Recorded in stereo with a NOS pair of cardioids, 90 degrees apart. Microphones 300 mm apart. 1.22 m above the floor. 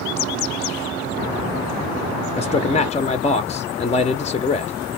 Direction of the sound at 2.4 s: 20° left.